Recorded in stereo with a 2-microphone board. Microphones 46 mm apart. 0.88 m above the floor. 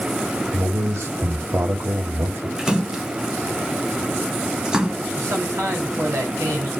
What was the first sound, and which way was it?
A man speaking, 70° right (ahead or behind).